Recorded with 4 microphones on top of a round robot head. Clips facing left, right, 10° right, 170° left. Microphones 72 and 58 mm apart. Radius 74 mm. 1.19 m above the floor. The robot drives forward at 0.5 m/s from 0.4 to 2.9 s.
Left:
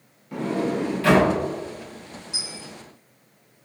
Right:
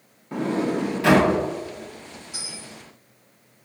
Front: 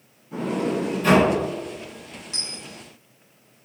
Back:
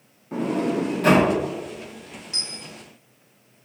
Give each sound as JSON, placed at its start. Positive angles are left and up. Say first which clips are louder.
{"t": 0.3, "sound": "a sliding door", "louder": "right 1 dB, back 1 dB", "azimuth_deg": -150, "distance_m": 0.7}
{"t": 2.3, "sound": "a dropped coin", "louder": "left 2 dB, back 1 dB", "azimuth_deg": 55, "distance_m": 0.8}